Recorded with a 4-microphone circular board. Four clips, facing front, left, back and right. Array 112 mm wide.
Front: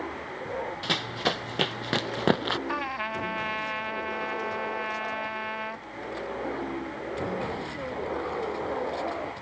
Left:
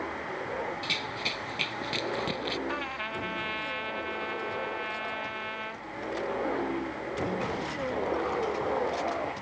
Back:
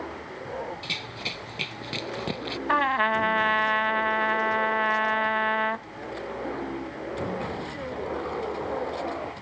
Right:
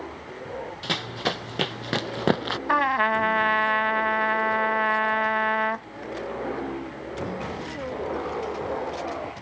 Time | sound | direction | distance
0.8 | running footsteps | 45° right | ?
2.7 | a trumpet | 120° right | ?